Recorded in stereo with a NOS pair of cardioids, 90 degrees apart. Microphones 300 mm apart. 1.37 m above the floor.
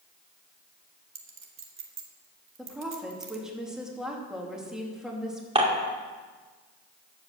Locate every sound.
1.1 s a clink: 45° right, 1.7 m
2.6 s a woman speaking: straight ahead, 2.5 m
5.5 s dishes clattering: 20° right, 2.5 m